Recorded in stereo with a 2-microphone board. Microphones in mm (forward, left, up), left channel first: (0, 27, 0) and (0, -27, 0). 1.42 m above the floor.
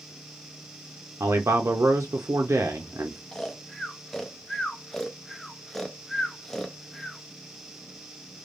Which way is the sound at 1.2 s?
60° right (ahead or behind).